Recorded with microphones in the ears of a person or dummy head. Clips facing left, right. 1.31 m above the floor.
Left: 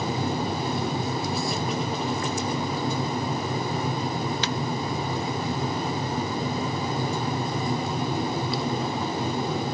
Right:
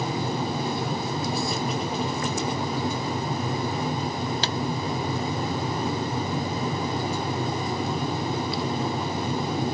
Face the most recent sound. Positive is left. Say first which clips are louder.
# left 1 dB
turn(degrees=-35)  # may be behind; listen again after turning